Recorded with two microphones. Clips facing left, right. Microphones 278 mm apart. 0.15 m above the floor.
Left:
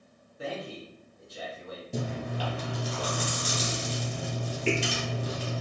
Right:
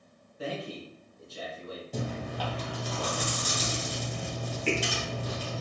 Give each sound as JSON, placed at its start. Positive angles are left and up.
{"t": 0.4, "sound": "a man speaking", "side_deg": 15, "distance_m": 1.7}
{"t": 1.9, "sound": "chewing", "side_deg": 30, "distance_m": 1.7}